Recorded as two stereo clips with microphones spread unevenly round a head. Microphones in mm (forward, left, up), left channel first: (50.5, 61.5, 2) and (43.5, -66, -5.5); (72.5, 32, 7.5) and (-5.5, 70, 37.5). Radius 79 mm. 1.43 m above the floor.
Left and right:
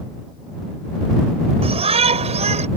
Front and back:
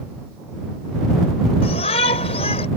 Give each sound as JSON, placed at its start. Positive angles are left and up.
{"t": 1.6, "sound": "a shout", "azimuth_deg": -55}